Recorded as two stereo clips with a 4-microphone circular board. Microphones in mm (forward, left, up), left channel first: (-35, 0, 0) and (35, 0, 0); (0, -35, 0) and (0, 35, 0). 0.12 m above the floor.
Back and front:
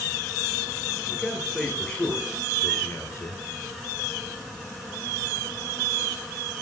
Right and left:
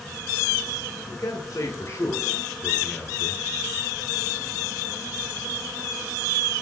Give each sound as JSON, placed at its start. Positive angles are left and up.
{"t": 1.1, "sound": "a man speaking", "azimuth_deg": -90, "distance_m": 3.5}